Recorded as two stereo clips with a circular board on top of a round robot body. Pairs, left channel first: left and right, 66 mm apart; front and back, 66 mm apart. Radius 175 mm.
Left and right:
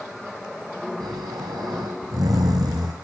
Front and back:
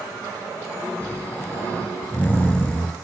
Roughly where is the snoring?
Ahead right.